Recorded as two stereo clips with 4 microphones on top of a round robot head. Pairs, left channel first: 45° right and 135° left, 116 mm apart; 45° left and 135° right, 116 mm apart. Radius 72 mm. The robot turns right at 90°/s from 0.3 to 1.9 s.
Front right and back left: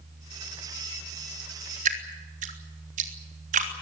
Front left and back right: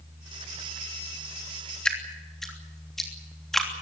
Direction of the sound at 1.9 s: 130° left.